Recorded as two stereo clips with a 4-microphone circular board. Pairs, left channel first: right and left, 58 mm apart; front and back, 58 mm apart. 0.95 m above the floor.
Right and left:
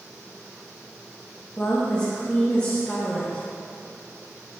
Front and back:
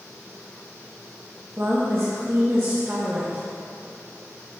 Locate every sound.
1.6 s a woman speaking: 155° right, 1.2 m